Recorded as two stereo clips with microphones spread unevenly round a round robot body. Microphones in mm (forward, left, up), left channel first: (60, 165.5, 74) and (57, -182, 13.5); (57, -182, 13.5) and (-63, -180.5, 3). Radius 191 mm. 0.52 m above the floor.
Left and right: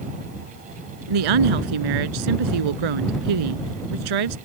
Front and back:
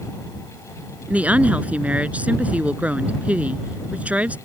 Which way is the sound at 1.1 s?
100° right.